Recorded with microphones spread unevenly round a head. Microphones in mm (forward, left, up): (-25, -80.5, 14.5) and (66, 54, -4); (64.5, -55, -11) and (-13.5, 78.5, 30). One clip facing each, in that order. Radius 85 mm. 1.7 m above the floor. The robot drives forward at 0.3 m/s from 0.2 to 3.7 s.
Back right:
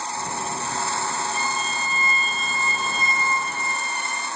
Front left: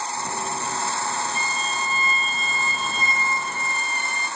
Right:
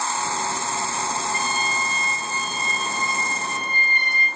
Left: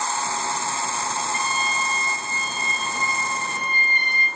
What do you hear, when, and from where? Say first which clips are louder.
1.3 s a violin: back right 1 dB, even; 125° right, 1.9 m; by 4.3 s 140° right, 2.5 m